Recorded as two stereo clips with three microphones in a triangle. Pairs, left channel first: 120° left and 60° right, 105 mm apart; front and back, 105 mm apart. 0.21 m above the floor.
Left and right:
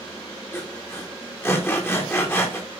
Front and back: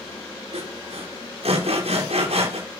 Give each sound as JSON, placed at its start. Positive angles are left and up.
{"t": 0.5, "sound": "sawing", "azimuth_deg": -175, "distance_m": 6.5}